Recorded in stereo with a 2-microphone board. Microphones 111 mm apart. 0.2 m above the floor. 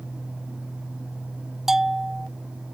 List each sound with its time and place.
1.7 s a bell: 5° right (ahead or behind)